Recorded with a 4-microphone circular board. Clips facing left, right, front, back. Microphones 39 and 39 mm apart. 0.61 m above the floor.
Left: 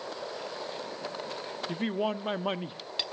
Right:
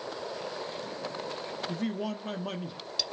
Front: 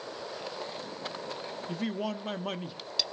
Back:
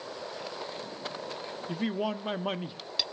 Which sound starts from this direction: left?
A man speaking, at 1.7 s.